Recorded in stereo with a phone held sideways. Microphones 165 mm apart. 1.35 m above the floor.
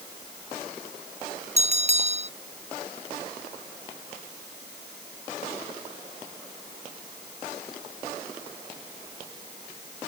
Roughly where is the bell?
Right.